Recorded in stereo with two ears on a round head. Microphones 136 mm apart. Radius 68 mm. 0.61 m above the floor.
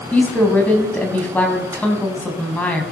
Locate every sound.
0.1 s a woman speaking: 10° left (ahead or behind), 5 m